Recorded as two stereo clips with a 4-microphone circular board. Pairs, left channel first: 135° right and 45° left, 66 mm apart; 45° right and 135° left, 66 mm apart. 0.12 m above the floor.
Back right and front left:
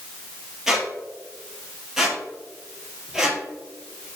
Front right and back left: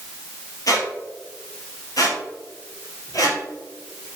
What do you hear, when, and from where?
0.7 s a squeak: 35° right, 1.8 m